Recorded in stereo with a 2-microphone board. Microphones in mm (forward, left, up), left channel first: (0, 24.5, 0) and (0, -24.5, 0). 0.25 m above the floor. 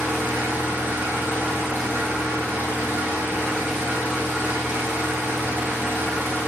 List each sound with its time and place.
0.0 s an engine running: 45° right (ahead or behind), 1.1 m